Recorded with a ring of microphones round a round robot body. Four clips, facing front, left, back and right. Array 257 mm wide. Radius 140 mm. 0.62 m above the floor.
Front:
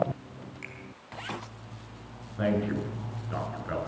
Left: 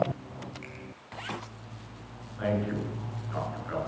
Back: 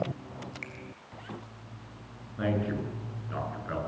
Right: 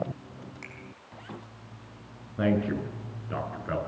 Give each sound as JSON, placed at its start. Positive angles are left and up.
{"t": 0.6, "sound": "a finger snap", "azimuth_deg": -110, "distance_m": 5.5}
{"t": 2.4, "sound": "a man speaking", "azimuth_deg": -85, "distance_m": 9.0}